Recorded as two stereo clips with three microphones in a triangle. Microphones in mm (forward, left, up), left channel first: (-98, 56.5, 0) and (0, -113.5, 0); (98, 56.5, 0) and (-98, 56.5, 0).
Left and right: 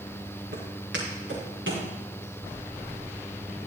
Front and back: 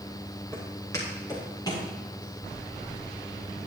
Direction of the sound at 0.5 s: 75° right.